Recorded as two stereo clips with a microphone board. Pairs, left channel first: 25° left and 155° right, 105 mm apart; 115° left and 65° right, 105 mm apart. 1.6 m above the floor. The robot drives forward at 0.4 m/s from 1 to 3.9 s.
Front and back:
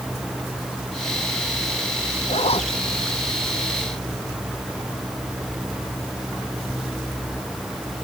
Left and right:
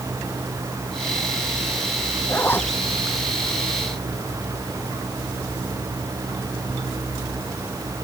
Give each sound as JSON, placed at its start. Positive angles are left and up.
{"t": 2.3, "sound": "a zipper", "azimuth_deg": 45}